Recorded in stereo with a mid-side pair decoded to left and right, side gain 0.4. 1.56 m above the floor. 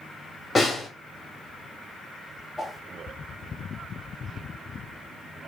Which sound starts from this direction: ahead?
A whoosh, at 2.6 s.